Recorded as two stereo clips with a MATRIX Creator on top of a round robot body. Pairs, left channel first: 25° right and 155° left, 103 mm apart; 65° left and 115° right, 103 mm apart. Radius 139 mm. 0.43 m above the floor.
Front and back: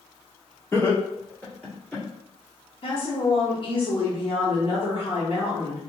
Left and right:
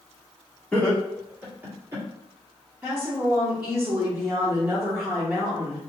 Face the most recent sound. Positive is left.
turn(degrees=-35)